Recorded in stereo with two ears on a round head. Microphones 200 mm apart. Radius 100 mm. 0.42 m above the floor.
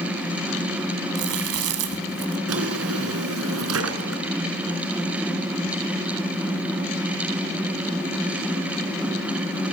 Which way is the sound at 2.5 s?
75° right (ahead or behind).